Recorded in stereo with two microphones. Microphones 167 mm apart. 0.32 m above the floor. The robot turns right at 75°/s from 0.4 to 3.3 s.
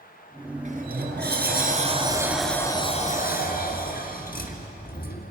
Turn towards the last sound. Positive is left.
turn(degrees=65)